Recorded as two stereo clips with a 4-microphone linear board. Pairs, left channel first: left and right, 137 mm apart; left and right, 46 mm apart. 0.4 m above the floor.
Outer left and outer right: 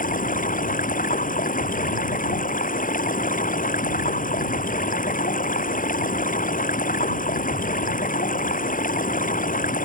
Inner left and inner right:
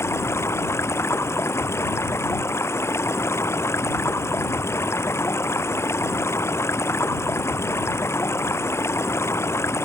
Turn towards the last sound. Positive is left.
turn(degrees=90)